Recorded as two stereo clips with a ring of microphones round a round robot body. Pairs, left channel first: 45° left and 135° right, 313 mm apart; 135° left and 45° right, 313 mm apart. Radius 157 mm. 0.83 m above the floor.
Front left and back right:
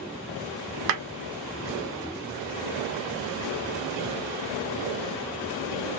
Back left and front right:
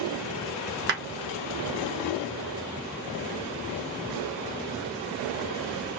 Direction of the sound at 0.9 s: 100° right.